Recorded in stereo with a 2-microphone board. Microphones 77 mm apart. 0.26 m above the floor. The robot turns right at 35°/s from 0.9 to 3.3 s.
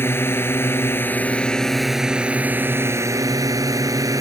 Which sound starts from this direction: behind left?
A drone, at 0.0 s.